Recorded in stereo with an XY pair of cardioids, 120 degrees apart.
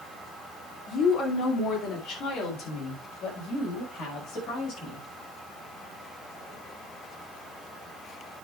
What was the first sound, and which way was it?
A woman speaking, 60° left.